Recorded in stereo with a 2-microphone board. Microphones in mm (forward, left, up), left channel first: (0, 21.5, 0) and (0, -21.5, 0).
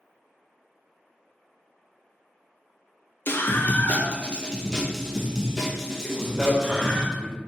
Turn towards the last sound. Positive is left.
turn(degrees=5)  # may be behind; listen again after turning